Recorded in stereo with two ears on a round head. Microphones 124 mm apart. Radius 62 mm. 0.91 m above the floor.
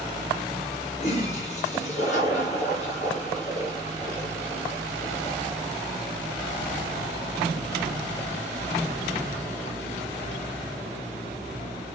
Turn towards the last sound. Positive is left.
turn(degrees=55)  # may be behind; listen again after turning